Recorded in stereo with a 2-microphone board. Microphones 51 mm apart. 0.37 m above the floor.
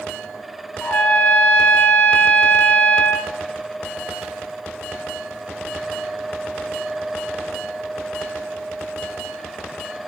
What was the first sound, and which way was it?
A trumpet, 35° left (ahead or behind).